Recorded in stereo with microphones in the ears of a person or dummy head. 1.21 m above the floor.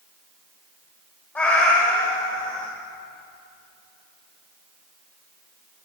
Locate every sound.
1.4 s a cat meowing: 10° left (ahead or behind), 1.3 m